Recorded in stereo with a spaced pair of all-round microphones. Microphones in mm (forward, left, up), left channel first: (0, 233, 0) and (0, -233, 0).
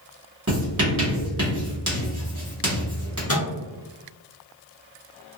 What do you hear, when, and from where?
0.5 s writing: 30° right (ahead or behind), 1.5 m
3.3 s a microwave: 30° left (ahead or behind), 0.9 m